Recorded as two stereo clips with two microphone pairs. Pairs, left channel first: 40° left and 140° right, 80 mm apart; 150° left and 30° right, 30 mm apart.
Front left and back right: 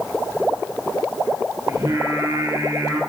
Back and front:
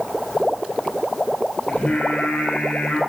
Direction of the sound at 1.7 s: Straight behind.